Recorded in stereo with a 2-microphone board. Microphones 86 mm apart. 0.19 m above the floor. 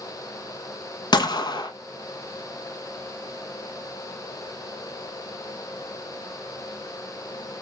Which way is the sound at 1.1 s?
55° left (ahead or behind).